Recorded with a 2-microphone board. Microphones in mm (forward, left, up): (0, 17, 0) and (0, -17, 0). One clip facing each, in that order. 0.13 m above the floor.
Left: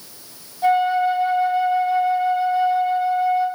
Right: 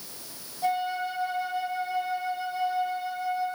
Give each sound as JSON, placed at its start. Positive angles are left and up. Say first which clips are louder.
{"t": 0.6, "sound": "a flute", "louder": "left 11 dB", "side_deg": 30, "distance_m": 4.5}